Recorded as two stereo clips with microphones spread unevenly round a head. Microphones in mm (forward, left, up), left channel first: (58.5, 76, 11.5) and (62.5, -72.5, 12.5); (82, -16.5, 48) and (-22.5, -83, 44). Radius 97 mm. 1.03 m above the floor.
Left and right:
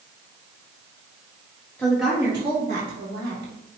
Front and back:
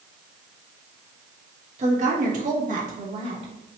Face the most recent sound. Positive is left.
turn(degrees=-120)